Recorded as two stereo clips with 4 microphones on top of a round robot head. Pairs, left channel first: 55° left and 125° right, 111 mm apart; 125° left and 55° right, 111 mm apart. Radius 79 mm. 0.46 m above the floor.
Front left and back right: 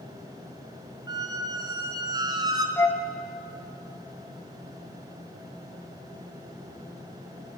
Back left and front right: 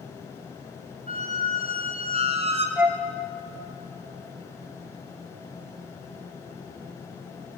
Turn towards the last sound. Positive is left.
turn(degrees=10)